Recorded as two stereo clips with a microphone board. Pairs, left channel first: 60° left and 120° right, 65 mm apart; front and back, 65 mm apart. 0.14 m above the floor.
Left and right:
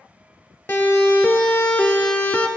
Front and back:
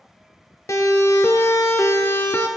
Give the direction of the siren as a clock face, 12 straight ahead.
12 o'clock.